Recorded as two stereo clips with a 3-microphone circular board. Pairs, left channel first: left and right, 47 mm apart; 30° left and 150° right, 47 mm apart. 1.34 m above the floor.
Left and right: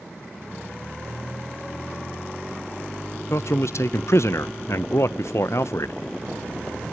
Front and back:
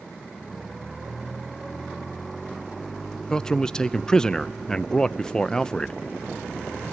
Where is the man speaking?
105° left, 0.5 m.